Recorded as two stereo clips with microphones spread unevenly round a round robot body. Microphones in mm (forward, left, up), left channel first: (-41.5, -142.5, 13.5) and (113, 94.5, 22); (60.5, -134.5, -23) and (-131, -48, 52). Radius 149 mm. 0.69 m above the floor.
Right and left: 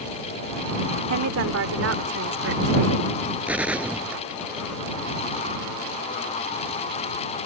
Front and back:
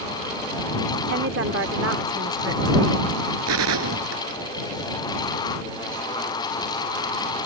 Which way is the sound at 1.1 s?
100° left.